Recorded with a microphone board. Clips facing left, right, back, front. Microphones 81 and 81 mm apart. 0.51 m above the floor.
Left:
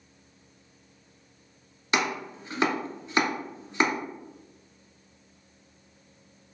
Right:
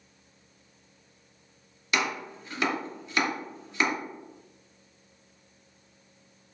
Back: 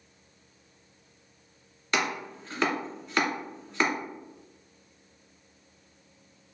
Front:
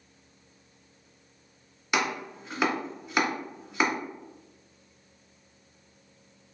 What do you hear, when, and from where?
1.9 s chopping: 65° left, 1.1 m